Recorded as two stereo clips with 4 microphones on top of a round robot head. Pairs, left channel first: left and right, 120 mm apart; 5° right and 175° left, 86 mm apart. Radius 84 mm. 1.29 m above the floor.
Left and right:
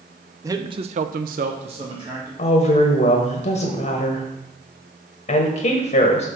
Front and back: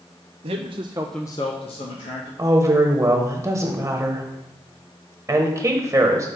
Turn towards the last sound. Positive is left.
turn(degrees=115)